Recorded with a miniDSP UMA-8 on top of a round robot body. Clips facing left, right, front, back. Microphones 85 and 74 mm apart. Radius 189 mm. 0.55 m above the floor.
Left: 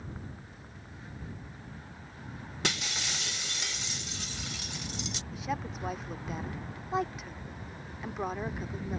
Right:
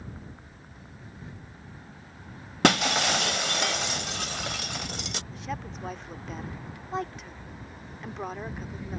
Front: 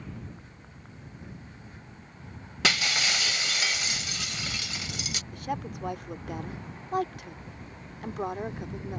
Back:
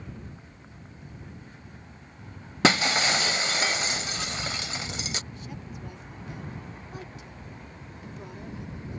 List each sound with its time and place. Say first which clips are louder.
2.6 s breaking glass: right 14 dB, back 6 dB; 120° right
5.3 s a woman speaking: left 4 dB, front 7 dB; 5° left